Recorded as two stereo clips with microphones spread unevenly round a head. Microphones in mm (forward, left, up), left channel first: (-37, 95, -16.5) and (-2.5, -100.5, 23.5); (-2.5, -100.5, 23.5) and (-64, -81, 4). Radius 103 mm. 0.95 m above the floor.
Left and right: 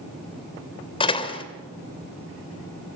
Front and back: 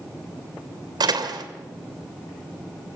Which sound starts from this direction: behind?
A door slam, at 1.0 s.